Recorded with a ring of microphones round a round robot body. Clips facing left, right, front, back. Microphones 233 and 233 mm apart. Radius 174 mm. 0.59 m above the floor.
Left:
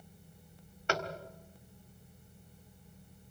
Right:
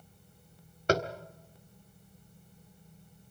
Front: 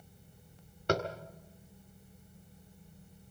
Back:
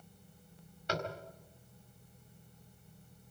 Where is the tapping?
45° right, 1.8 m.